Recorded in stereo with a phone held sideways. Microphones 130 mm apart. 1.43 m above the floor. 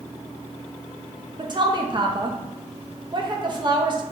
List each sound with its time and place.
1.4 s a woman speaking: 35° right (ahead or behind), 0.6 m